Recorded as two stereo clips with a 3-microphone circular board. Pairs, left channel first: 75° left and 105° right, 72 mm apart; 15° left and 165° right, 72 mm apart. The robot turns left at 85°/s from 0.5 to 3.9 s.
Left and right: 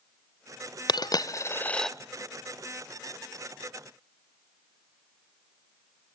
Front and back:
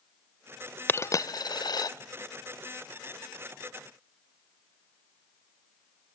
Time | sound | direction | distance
0.9 | a dropped coin | 75° left | 0.5 m